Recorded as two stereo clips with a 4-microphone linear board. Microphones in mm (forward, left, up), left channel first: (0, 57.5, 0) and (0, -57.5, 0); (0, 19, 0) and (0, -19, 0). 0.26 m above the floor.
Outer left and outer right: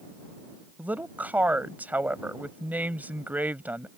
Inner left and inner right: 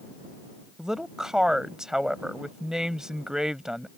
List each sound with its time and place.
0.8 s a woman speaking: 15° right (ahead or behind)